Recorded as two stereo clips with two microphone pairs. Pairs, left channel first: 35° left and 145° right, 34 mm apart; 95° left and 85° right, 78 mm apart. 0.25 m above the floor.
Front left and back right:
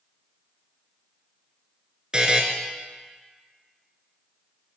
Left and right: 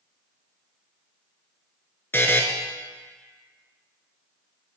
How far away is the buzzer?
About 0.6 m.